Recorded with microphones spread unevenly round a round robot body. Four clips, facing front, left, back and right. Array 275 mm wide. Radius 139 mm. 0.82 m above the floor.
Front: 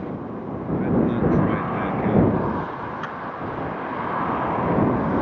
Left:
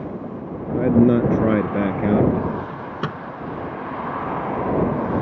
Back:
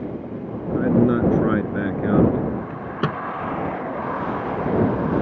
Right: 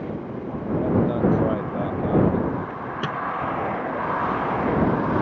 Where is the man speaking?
120° left.